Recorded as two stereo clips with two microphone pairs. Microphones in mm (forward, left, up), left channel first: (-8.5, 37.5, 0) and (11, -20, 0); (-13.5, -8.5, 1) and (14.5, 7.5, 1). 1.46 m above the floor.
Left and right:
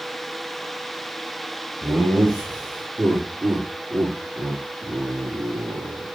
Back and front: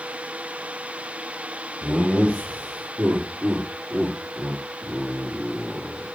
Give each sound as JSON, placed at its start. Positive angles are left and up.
{"t": 1.8, "sound": "laughter", "azimuth_deg": -10, "distance_m": 3.0}